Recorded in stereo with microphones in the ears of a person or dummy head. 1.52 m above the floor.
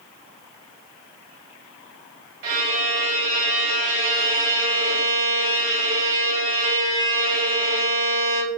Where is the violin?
65° right (ahead or behind), 2.5 m.